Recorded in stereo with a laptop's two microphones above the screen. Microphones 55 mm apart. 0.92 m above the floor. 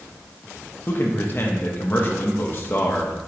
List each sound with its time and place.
0.9 s a man speaking: 40° left (ahead or behind), 1.1 m